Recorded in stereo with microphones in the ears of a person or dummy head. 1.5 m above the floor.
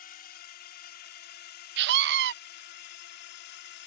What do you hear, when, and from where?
0.0 s a drone: 50° left (ahead or behind); by 3.9 s 60° left (ahead or behind)
1.8 s a scream: 60° right (ahead or behind)